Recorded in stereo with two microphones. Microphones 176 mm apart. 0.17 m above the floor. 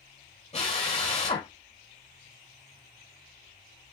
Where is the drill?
40° left (ahead or behind), 1.8 m.